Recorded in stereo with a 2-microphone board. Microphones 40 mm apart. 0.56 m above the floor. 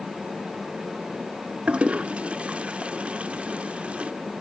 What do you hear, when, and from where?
1.7 s a toilet flushing: 30° right (ahead or behind), 0.5 m